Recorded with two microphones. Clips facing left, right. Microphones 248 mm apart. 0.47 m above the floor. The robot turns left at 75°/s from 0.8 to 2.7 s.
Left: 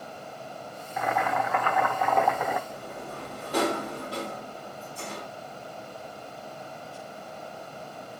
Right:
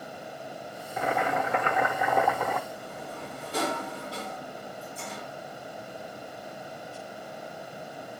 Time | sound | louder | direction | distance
1.0 | boiling | right 1 dB | 70° right | 0.7 m
2.7 | a sliding door | left 1 dB | 70° left (ahead or behind) | 1.0 m